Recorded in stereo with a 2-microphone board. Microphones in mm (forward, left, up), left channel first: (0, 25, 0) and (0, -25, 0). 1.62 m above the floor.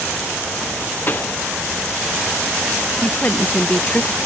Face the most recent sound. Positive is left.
turn(degrees=25)  # may be behind; listen again after turning